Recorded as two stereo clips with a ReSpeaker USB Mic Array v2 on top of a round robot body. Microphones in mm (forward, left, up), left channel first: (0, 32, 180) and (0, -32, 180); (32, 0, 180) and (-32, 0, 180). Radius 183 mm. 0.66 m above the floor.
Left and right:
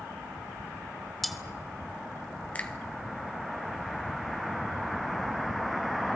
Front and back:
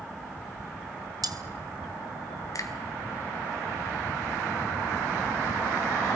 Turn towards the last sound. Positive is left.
turn(degrees=30)